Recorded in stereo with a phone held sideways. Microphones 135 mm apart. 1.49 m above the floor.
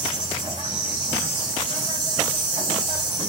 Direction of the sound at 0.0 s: 35° right (ahead or behind).